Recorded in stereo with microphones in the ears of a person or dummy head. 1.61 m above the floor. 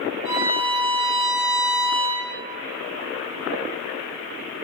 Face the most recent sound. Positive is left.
turn(degrees=-15)  # may be behind; listen again after turning